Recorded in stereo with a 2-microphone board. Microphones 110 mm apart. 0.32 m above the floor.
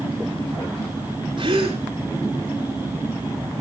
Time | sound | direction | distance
1.4 | a gasp | 45° right (ahead or behind) | 4 m